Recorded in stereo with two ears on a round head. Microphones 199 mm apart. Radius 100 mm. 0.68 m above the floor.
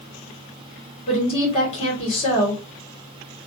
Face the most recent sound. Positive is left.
turn(degrees=25)  # may be behind; listen again after turning